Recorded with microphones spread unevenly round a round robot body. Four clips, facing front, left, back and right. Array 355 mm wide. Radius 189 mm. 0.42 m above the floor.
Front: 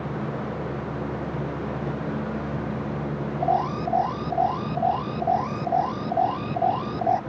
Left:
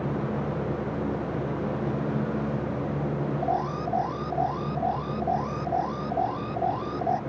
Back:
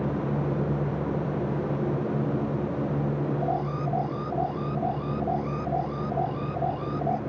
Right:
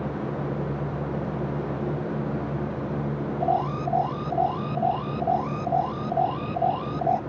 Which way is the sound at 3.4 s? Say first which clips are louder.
Right 5 dB, front 5 dB; 35° right.